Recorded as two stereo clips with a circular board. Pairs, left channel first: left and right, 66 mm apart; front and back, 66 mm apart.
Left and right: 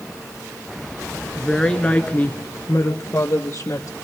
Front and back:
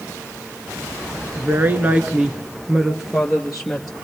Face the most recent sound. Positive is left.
turn(degrees=85)